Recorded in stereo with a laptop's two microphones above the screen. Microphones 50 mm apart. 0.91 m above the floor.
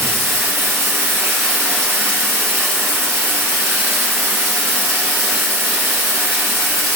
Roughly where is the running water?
Right.